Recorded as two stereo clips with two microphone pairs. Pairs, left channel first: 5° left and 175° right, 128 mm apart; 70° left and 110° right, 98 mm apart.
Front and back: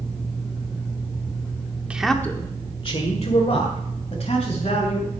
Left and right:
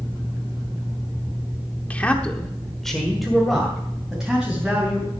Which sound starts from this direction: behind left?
A man speaking, at 1.9 s.